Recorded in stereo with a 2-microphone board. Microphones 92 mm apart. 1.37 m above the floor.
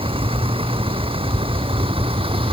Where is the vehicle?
90° right; by 2.5 s 80° right.